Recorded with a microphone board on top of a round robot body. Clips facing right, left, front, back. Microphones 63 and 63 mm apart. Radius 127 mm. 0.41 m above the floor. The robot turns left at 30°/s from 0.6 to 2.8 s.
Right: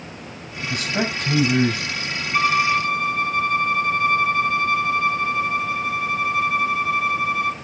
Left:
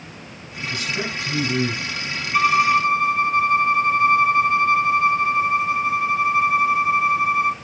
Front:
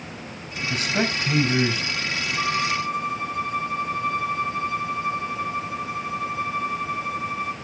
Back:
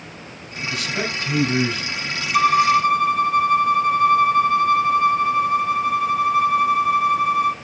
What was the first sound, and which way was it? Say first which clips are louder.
A man speaking: right 3 dB, front 1 dB; 50° right.